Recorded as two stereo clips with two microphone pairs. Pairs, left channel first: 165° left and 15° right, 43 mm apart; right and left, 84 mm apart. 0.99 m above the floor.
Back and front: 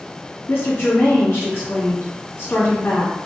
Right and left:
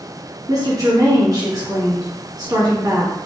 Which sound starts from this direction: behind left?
A woman speaking, at 0.5 s.